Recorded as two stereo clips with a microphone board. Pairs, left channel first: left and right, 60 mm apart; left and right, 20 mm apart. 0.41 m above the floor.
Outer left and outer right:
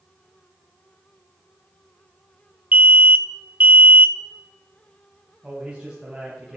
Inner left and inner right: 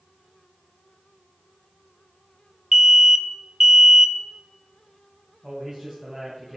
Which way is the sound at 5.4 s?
15° right (ahead or behind).